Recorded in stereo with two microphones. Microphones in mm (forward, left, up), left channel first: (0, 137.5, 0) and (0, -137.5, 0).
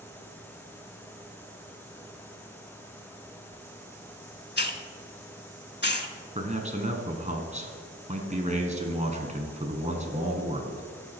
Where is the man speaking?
25° right (ahead or behind), 1.2 m.